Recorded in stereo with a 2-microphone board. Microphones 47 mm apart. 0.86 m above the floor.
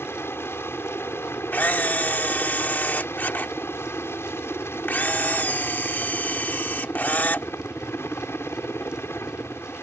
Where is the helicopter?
60° left (ahead or behind).